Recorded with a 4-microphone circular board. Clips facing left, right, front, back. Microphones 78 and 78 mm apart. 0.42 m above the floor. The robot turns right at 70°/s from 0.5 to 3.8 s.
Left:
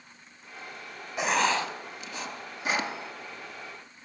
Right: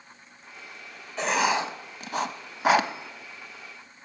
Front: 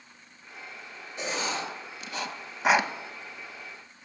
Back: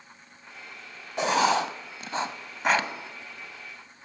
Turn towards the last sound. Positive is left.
turn(degrees=-5)